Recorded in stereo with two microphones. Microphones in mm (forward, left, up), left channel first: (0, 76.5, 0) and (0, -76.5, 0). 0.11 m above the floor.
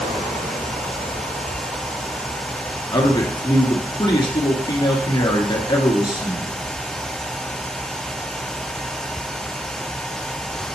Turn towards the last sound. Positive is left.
turn(degrees=30)  # may be behind; listen again after turning